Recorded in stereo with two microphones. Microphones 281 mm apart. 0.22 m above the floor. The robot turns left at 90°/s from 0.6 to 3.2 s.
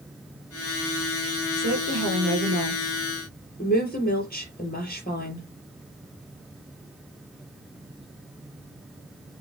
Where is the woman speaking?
65° right, 4.5 m; by 5.5 s 145° left, 4.5 m.